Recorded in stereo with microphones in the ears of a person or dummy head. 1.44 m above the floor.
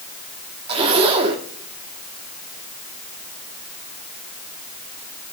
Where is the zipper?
30° right (ahead or behind), 1.5 m.